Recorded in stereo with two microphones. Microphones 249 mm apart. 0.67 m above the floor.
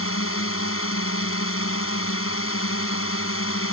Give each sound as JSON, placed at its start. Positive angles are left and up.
{"t": 0.0, "sound": "a drone", "side_deg": 60}